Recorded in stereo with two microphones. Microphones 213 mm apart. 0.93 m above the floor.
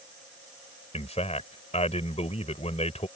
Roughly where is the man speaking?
Left.